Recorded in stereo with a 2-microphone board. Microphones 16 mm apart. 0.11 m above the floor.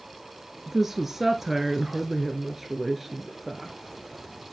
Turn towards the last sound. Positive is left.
turn(degrees=-10)  # may be behind; listen again after turning